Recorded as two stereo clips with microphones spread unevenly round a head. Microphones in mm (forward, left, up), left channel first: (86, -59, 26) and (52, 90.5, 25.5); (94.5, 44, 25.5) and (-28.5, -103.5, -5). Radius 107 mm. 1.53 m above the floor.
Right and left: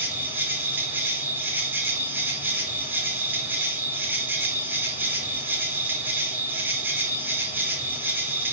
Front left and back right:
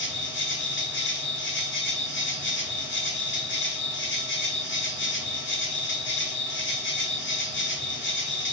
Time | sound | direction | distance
0.0 | an insect | 25° left | 4 m